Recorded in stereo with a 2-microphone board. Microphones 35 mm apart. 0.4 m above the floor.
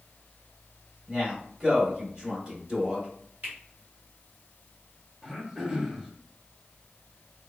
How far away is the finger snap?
About 1.6 m.